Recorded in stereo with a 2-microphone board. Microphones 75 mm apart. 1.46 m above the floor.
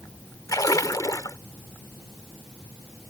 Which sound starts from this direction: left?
A splash, at 0.5 s.